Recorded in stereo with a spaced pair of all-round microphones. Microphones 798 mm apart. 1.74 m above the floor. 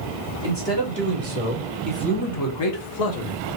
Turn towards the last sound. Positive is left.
turn(degrees=65)  # may be behind; listen again after turning